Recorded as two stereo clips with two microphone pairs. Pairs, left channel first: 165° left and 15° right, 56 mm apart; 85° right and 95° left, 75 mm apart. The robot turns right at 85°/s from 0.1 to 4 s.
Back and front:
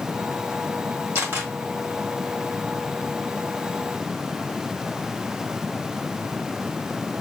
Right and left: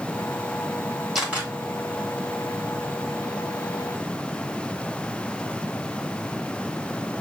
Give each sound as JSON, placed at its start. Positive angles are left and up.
{"t": 1.1, "sound": "a camera shutter", "azimuth_deg": 10, "distance_m": 1.9}